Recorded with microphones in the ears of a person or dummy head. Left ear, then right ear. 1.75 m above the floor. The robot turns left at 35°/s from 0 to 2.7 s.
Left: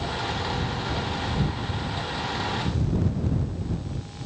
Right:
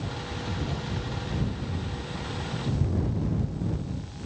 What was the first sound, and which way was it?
Only background noise.